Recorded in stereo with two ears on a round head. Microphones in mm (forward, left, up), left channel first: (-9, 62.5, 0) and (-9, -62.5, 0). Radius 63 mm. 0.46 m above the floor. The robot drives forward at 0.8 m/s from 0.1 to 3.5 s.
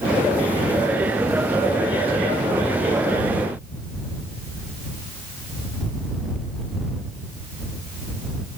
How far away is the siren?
No siren in this recording.